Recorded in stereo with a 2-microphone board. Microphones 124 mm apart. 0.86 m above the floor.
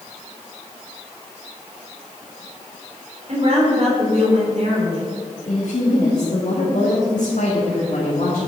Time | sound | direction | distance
3.3 | a woman speaking | 50° right (ahead or behind) | 3.5 m
5.5 | a woman speaking | 70° left (ahead or behind) | 2 m